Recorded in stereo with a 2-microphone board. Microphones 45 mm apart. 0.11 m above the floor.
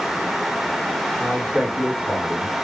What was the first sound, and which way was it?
A man speaking, 35° right (ahead or behind).